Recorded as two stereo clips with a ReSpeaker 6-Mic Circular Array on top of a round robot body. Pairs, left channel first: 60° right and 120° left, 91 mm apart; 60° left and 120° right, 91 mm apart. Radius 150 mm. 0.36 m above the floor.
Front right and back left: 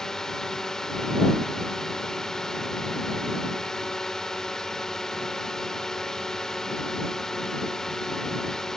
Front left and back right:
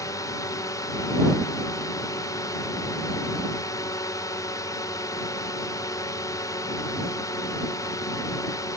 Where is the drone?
25° left.